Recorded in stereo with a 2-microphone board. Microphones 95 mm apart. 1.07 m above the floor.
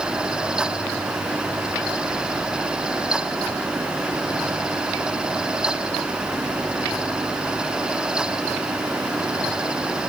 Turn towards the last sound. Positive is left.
No sound to turn to.